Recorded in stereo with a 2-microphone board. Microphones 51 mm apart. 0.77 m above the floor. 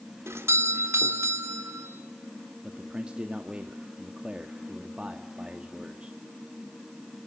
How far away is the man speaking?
About 1.5 m.